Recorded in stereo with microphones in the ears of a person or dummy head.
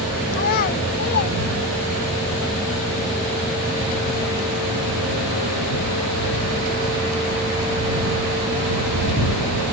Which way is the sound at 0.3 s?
50° left (ahead or behind).